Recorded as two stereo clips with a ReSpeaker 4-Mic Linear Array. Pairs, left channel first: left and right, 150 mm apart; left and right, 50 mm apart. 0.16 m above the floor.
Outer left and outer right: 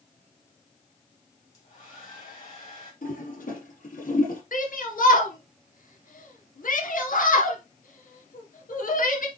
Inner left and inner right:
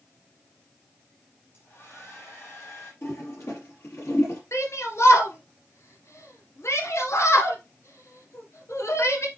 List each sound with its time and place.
1.5 s a hair dryer: 50° left (ahead or behind), 6 m
3.0 s a toilet flushing: 65° left (ahead or behind), 5.5 m
4.5 s a shout: 65° left (ahead or behind), 2.5 m